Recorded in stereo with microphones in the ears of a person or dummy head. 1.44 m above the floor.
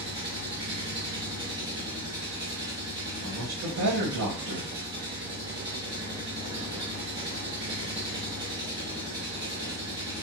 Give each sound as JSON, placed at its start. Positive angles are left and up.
{"t": 0.0, "sound": "an engine running", "side_deg": -20, "distance_m": 1.4}
{"t": 3.2, "sound": "a man speaking", "side_deg": -80, "distance_m": 1.7}